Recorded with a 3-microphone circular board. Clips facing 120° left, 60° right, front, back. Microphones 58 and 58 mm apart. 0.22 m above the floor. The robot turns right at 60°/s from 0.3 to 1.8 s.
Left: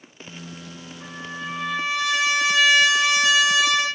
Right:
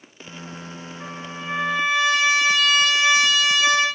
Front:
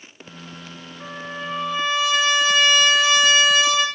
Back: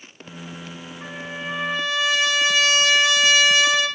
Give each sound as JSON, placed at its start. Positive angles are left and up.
{"t": 1.0, "sound": "a trumpet", "azimuth_deg": -10, "distance_m": 9.5}